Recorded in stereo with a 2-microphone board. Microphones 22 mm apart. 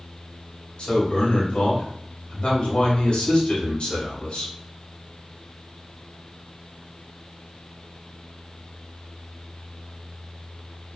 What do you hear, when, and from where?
0.8 s a man speaking: 55° left (ahead or behind), 1.6 m